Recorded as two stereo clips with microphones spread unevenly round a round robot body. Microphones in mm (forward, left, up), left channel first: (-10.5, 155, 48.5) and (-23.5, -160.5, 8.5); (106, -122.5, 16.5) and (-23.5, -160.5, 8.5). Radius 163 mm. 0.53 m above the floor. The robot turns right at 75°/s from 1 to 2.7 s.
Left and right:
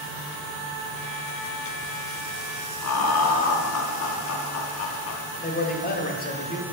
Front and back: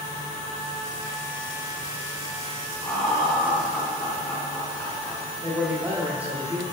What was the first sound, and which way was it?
Laughter, 100° left.